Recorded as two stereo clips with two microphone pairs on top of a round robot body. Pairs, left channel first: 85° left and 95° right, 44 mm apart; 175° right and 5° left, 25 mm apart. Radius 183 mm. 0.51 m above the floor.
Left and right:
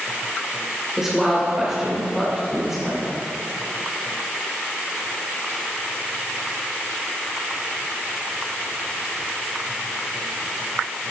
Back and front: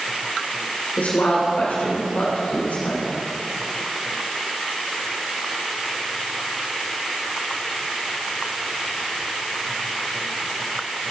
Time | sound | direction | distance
1.0 | a woman speaking | 170° right | 3 m